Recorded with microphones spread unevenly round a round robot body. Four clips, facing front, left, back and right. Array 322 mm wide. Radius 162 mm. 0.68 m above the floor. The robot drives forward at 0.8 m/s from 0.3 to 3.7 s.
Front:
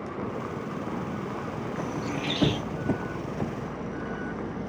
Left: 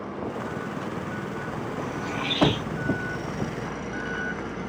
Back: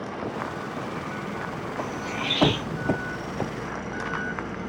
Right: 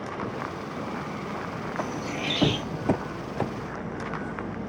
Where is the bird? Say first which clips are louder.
Right 1 dB, back 1 dB; 10° right, 2.5 m; by 2.6 s 15° right, 1.7 m.